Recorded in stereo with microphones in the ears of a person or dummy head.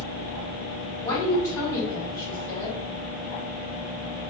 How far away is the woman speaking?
About 1.5 m.